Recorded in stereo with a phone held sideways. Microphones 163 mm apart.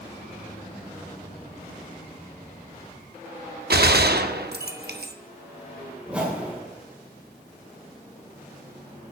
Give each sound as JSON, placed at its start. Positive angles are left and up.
{"t": 3.7, "sound": "a gunshot", "side_deg": -75, "distance_m": 0.8}
{"t": 6.1, "sound": "a whoosh", "side_deg": -5, "distance_m": 2.5}